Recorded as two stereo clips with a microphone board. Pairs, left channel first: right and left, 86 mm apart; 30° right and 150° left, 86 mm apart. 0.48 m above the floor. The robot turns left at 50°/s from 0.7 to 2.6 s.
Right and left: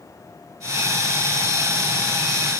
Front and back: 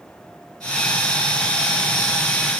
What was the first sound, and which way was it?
Only background noise.